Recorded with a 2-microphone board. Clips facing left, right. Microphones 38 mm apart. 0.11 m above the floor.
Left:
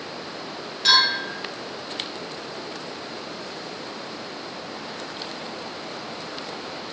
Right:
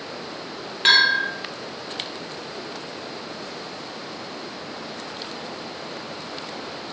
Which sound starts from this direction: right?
A bell, at 0.8 s.